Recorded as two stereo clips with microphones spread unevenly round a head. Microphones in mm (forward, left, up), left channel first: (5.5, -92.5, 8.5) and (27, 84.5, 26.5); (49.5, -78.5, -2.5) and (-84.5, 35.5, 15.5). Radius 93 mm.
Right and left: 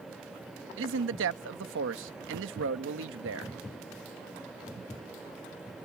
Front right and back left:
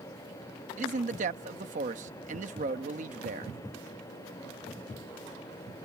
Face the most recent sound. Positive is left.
turn(degrees=85)